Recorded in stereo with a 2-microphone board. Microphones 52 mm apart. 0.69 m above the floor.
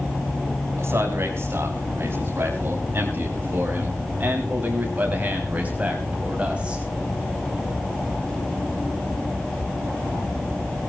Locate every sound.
0.8 s a man speaking: 55° right (ahead or behind), 6 m; by 6.8 s 25° right (ahead or behind), 5 m